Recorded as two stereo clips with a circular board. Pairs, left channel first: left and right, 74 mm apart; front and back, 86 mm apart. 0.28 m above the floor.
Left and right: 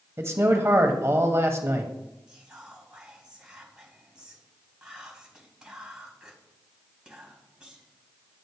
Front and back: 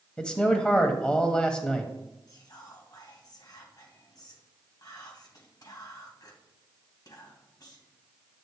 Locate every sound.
0.2 s a man speaking: 70° right, 1.3 m
2.3 s whispering: 15° right, 2.5 m